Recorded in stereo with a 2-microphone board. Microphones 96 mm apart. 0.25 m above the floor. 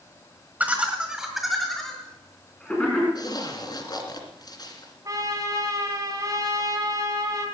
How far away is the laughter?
About 1.4 m.